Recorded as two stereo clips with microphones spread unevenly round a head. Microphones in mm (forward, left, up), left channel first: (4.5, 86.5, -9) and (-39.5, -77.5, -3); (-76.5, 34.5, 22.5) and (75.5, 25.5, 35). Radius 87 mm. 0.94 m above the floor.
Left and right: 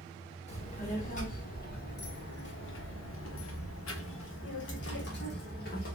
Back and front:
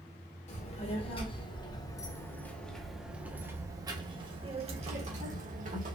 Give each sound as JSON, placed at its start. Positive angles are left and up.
{"t": 0.5, "sound": "a child speaking", "azimuth_deg": 130, "distance_m": 1.8}